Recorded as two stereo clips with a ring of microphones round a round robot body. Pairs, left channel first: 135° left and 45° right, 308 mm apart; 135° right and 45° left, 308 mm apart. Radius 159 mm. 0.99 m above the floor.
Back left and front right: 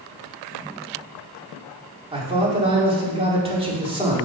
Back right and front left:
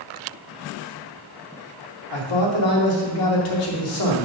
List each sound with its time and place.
2.1 s a man speaking: 120° right, 2.5 m